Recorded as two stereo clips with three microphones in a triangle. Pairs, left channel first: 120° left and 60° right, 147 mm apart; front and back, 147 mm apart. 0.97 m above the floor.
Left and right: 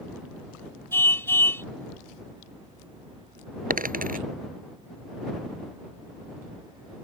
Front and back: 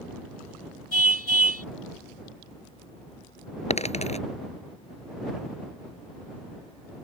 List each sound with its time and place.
0.9 s a car horn: 165° right
3.7 s a dropped coin: 45° right